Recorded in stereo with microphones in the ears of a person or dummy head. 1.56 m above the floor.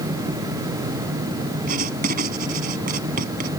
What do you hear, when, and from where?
1.7 s writing: 50° right (ahead or behind)